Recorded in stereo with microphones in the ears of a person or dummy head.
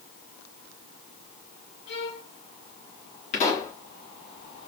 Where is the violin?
70° left (ahead or behind), 1.6 m.